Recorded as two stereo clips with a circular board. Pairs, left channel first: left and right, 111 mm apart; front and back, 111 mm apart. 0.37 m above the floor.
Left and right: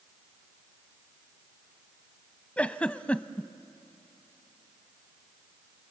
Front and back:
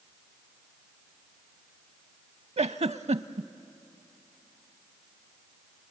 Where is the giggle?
170° left, 0.6 m.